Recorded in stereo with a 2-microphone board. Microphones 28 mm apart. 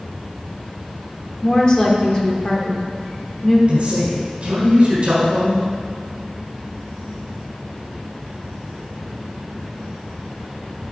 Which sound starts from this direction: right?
A man speaking, at 3.7 s.